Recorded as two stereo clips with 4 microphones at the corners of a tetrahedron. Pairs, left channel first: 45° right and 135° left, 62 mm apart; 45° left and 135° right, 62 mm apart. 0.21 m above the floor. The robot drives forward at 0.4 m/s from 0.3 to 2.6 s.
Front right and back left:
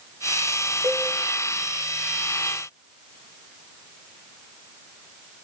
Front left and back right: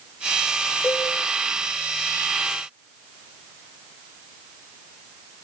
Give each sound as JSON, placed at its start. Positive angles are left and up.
{"t": 0.8, "sound": "a cowbell", "azimuth_deg": 160, "distance_m": 6.0}